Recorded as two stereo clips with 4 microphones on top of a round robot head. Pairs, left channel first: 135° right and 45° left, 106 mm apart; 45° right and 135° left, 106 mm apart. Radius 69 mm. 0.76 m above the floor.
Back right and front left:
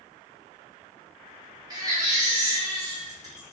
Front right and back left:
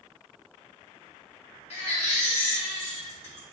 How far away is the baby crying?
About 1.7 m.